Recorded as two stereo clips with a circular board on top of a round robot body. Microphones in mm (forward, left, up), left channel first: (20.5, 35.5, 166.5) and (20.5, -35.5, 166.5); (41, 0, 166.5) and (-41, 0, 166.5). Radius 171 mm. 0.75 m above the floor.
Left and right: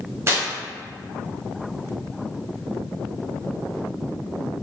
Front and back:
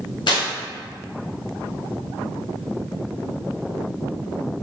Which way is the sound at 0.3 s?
35° right.